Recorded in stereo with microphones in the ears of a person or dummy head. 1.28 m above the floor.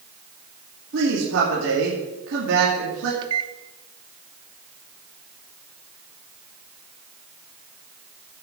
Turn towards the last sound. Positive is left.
turn(degrees=-25)  # may be behind; listen again after turning